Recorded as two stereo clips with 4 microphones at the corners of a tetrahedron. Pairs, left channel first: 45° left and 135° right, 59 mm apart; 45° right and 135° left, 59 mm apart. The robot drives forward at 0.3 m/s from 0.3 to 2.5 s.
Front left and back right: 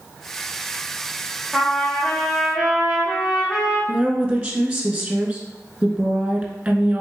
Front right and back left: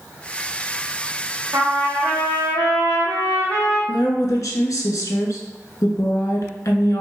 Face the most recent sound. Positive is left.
turn(degrees=-75)